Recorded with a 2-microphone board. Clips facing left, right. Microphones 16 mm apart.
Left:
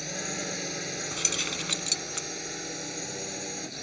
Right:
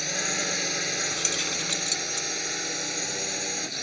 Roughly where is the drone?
Right.